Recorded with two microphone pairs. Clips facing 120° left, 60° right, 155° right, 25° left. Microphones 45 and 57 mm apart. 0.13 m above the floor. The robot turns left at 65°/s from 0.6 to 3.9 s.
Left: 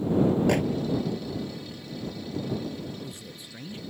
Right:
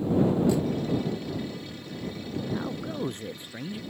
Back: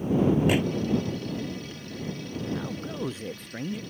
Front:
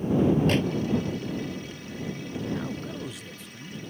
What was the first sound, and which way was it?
A microwave, 125° left.